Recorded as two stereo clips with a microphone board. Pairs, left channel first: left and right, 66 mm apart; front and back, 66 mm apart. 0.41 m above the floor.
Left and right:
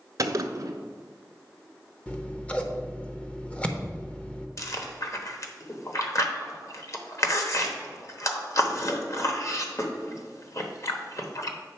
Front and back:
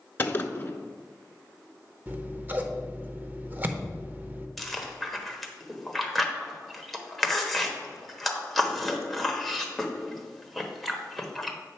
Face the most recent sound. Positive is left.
turn(degrees=85)